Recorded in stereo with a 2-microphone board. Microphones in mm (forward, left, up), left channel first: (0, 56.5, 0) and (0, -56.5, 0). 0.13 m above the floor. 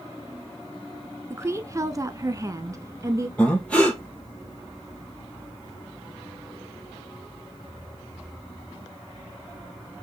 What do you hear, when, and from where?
1.3 s a woman speaking: 25° right (ahead or behind), 1.2 m
3.4 s breathing: 10° left (ahead or behind), 4 m